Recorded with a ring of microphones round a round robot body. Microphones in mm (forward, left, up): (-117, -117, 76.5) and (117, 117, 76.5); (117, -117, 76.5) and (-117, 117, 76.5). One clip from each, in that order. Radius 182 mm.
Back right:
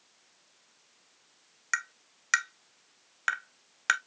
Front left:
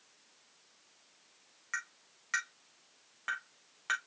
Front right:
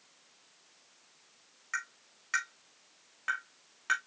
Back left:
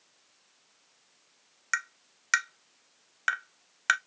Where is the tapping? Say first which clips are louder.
Back right 7 dB, back left 6 dB; 170° left, 0.6 m.